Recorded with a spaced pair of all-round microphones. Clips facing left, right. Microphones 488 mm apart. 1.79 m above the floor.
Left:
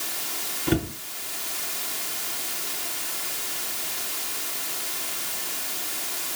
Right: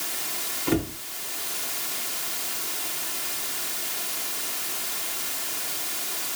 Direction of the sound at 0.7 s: 35° left (ahead or behind).